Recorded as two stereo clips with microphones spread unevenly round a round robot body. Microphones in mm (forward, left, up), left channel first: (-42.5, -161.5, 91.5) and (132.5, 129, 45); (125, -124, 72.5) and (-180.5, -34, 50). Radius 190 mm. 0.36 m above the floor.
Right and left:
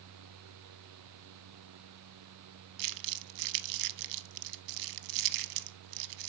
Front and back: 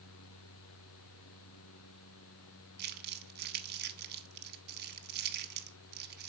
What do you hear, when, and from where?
2.8 s crumpling: 100° left, 0.7 m